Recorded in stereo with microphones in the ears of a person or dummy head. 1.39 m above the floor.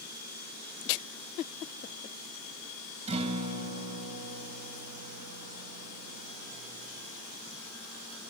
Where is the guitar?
35° right (ahead or behind), 2.5 m.